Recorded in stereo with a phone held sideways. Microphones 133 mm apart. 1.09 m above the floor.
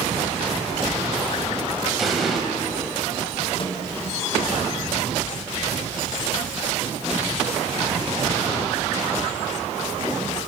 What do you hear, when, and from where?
2.0 s an explosion: centre (ahead or behind), 4.5 m
3.6 s a microwave: 40° left (ahead or behind), 4 m